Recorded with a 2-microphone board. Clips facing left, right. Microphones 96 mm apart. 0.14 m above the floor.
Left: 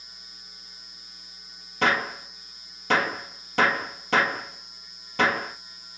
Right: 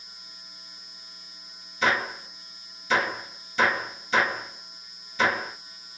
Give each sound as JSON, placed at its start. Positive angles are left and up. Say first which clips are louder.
{"t": 1.8, "sound": "a gunshot", "louder": "left 1 dB", "side_deg": 70, "distance_m": 1.6}